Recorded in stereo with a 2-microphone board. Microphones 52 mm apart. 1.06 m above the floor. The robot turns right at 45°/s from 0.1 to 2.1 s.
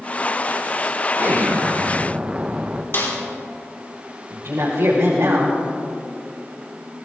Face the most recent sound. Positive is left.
turn(degrees=-80)